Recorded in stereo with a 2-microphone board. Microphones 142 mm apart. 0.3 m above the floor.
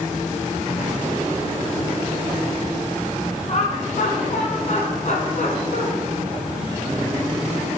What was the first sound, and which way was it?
Laughter, 50° left (ahead or behind).